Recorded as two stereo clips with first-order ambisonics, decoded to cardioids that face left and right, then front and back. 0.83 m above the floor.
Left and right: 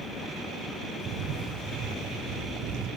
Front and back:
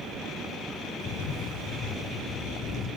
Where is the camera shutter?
60° right, 1.8 m.